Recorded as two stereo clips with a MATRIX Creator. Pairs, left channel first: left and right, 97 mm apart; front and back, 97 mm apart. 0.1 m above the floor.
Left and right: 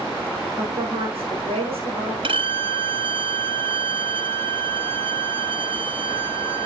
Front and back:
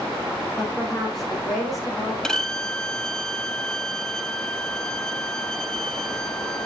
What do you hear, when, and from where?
0.6 s a woman speaking: 90° right, 5.5 m
2.2 s a violin: 80° right, 0.6 m